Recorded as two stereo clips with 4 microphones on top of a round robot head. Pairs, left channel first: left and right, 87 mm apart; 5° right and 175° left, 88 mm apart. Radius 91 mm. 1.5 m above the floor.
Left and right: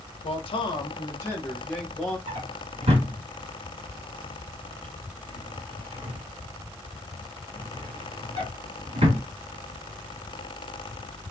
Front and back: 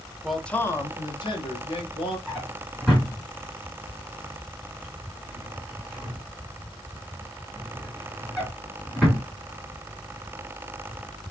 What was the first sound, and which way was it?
A man speaking, 85° left.